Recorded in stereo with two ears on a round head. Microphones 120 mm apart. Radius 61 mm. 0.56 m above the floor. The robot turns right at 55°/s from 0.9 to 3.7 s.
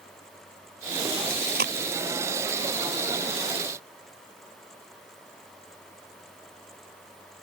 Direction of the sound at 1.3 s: 80° right.